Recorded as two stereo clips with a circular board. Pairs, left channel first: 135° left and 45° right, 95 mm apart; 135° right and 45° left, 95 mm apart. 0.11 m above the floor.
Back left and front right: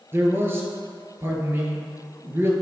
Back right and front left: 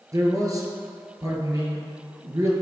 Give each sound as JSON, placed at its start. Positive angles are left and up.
{"t": 0.1, "sound": "a man speaking", "azimuth_deg": 10, "distance_m": 1.6}